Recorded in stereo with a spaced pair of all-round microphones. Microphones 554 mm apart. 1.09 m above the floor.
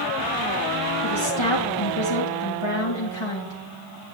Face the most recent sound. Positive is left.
turn(degrees=50)  # may be behind; listen again after turning